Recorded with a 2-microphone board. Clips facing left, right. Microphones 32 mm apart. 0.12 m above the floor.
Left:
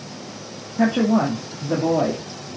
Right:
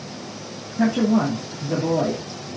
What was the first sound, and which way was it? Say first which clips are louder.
A woman speaking: left 1 dB; 60° left (ahead or behind).